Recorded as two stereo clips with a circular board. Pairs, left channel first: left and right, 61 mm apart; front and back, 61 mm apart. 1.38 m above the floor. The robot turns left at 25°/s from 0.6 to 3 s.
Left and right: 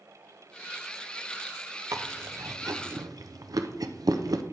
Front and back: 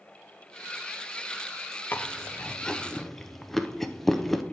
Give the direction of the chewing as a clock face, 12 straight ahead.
2 o'clock.